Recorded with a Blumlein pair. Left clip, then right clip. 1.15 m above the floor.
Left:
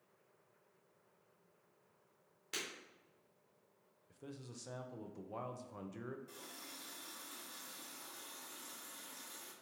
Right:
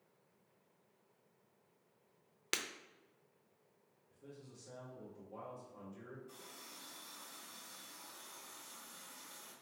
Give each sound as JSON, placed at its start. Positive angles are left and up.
{"t": 2.5, "sound": "breaking glass", "azimuth_deg": -50, "distance_m": 0.6}
{"t": 4.1, "sound": "a man speaking", "azimuth_deg": 60, "distance_m": 0.6}
{"t": 6.3, "sound": "a running tap", "azimuth_deg": 60, "distance_m": 1.5}